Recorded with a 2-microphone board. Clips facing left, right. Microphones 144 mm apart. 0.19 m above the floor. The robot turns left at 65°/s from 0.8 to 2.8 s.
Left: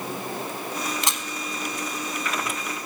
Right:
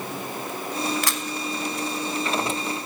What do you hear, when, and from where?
1.0 s a camera shutter: 25° left (ahead or behind), 0.9 m; by 1.2 s 20° left (ahead or behind), 0.9 m